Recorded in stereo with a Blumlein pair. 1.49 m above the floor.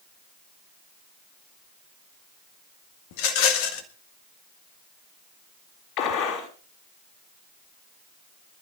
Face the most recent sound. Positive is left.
turn(degrees=40)